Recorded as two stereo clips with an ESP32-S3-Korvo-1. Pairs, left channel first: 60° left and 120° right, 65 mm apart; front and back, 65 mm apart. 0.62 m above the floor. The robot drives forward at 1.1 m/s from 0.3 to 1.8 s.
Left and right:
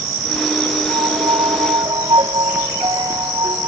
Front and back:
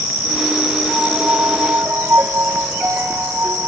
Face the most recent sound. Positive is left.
turn(degrees=-120)